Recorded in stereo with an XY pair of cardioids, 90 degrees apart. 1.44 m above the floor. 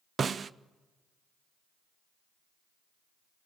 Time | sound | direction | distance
0.2 | a snare drum | 50° right | 0.7 m